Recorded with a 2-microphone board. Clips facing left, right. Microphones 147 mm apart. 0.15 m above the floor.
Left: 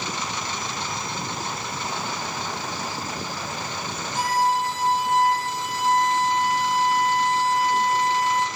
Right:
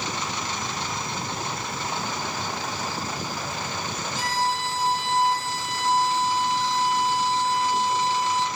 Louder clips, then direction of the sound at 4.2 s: Left 5 dB; 55° left (ahead or behind).